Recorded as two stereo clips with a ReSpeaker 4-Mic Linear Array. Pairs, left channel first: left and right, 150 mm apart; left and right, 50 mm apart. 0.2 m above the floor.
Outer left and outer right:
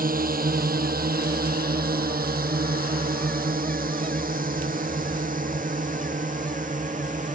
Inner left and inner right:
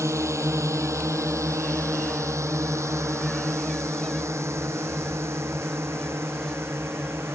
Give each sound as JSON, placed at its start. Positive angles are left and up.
{"t": 0.0, "sound": "a drone", "side_deg": -70}